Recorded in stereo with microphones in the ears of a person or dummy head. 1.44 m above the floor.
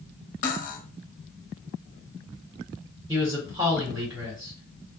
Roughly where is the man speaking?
Right.